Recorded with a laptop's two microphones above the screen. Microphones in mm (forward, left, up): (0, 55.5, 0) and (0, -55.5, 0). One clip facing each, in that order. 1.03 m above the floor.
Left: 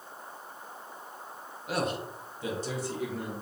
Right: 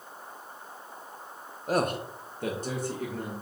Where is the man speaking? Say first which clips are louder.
Right 4 dB; 40° right (ahead or behind), 0.6 m; by 3.3 s 45° right (ahead or behind), 1.5 m.